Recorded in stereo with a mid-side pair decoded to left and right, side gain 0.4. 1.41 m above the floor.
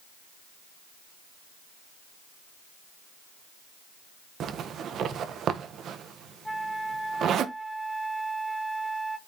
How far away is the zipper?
About 1.2 m.